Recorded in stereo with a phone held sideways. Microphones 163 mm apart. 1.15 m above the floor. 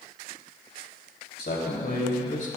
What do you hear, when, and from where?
1.4 s a man speaking: 70° left (ahead or behind), 3 m; by 2.5 s 50° left (ahead or behind), 2 m